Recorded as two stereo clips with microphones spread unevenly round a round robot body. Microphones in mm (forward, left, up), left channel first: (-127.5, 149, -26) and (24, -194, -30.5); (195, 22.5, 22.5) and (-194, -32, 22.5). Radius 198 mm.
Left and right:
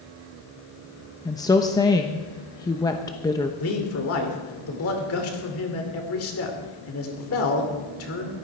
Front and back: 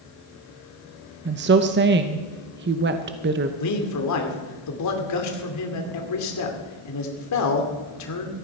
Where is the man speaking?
55° left, 2.5 m.